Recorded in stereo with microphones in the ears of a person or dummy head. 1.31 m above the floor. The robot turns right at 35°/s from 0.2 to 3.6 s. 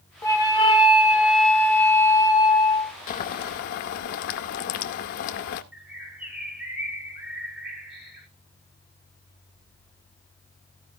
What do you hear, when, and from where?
0.2 s a flute: 35° left, 1.1 m; by 2.9 s 130° left, 1.1 m
3.1 s boiling: 40° left (ahead or behind), 0.7 m; by 5.6 s 45° left (ahead or behind), 0.7 m
5.7 s a bird: 5° right (ahead or behind), 2.5 m